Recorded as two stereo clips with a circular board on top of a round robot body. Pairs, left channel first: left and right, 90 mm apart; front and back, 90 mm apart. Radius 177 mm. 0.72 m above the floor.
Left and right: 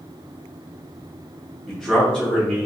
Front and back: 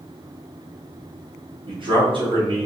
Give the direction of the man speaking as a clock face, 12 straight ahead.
6 o'clock.